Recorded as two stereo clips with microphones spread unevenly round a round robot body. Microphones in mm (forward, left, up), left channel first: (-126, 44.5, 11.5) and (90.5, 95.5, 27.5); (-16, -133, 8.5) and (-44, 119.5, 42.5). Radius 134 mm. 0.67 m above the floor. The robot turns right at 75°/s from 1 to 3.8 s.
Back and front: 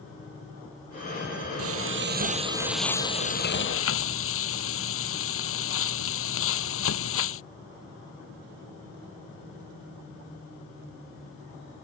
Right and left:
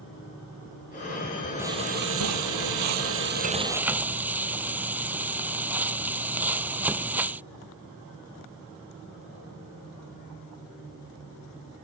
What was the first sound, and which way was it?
Frying, 15° left.